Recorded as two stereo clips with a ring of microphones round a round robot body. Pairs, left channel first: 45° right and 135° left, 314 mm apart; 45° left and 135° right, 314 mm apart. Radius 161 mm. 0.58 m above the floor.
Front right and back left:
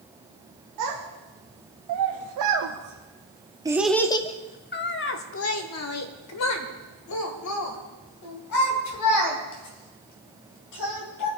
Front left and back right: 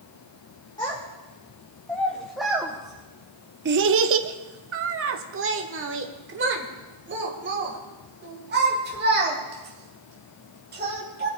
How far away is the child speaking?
About 1.6 m.